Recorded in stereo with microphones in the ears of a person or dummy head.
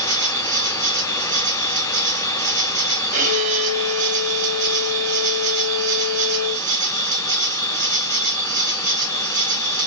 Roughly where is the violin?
Right.